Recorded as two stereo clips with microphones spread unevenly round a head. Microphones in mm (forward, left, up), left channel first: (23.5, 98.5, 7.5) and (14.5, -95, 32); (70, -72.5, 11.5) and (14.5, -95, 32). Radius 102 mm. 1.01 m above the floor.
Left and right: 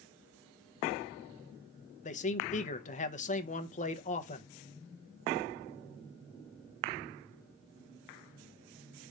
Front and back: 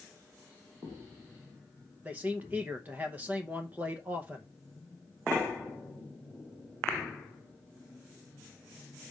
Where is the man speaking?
120° left, 0.8 m.